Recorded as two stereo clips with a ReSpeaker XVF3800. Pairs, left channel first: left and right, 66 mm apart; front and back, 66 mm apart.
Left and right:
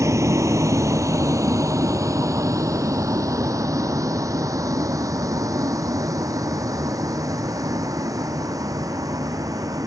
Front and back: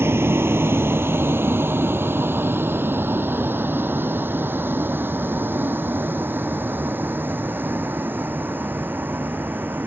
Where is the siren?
I don't hear a siren.